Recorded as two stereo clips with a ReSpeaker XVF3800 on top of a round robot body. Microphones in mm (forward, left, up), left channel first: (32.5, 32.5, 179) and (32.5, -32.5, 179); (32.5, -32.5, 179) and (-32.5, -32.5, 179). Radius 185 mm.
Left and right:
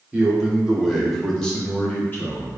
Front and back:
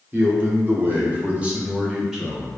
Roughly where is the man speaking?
Behind right.